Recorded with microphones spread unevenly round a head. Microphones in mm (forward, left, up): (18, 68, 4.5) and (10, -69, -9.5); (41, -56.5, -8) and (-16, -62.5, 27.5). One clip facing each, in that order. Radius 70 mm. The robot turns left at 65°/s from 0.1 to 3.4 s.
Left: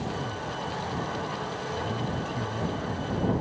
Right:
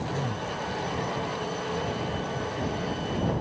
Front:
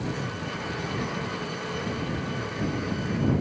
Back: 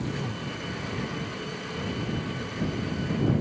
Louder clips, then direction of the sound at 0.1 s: Right 2 dB, front 1 dB; 125° right.